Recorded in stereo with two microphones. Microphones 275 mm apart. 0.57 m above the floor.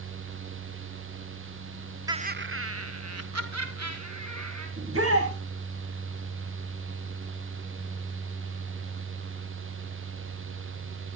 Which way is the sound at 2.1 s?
15° right (ahead or behind).